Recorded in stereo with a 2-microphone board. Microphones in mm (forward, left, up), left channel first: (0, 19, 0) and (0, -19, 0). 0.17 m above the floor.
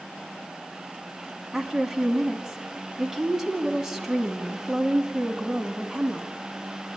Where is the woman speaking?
10° right (ahead or behind), 1.0 m.